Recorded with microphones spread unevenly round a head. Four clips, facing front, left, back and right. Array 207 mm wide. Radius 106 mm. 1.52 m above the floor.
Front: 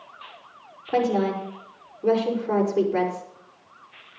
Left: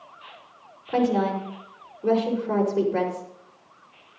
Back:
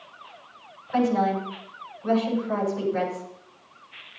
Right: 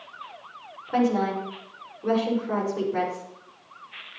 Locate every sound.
0.9 s a woman speaking: straight ahead, 5.5 m